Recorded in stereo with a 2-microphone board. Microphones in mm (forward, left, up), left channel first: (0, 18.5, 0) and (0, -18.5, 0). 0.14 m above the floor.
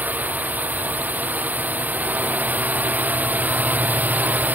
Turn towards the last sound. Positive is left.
turn(degrees=-55)  # may be behind; listen again after turning